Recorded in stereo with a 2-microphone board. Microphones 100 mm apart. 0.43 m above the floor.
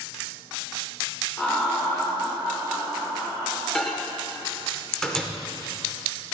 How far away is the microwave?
About 0.7 m.